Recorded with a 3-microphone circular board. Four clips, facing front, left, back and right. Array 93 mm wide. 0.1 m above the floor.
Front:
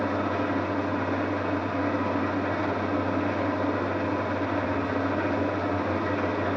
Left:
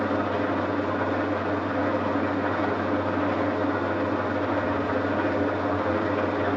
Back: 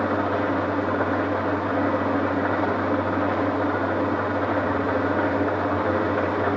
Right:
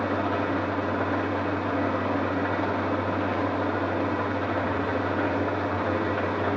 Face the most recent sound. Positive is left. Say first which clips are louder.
# left 1 dB, back 4 dB
turn(degrees=-175)